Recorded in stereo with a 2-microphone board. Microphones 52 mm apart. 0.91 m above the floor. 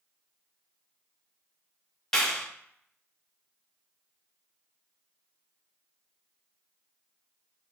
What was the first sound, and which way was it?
A clap, 10° left (ahead or behind).